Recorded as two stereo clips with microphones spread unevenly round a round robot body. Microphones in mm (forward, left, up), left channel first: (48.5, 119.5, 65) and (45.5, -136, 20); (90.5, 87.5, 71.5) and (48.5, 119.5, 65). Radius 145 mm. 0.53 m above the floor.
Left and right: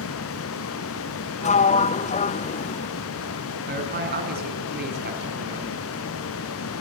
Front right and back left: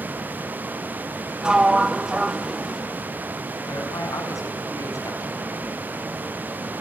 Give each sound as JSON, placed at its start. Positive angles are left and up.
{"t": 1.4, "sound": "a sliding door", "azimuth_deg": 135, "distance_m": 0.6}
{"t": 3.7, "sound": "a man speaking", "azimuth_deg": -40, "distance_m": 5.0}